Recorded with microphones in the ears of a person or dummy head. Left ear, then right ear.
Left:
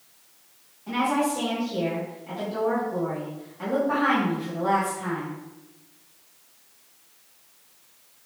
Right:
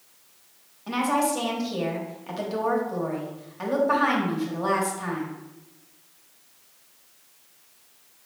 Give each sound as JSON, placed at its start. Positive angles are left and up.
{"t": 0.9, "sound": "a woman speaking", "side_deg": -45, "distance_m": 1.1}